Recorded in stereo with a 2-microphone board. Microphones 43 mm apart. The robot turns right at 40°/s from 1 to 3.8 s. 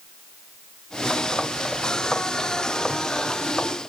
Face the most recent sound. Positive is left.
No sound to turn to.